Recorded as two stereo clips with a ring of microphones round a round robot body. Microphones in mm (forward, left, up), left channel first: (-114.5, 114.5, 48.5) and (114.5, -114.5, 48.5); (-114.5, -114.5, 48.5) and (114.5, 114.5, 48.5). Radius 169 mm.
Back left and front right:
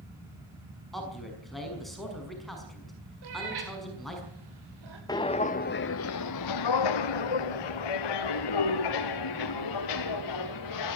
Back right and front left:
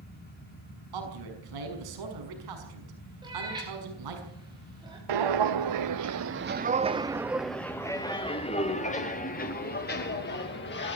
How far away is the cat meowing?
About 8 m.